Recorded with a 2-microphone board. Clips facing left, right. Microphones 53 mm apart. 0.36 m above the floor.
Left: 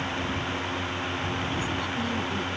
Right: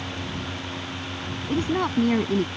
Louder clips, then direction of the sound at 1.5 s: Right 5 dB; 55° right (ahead or behind).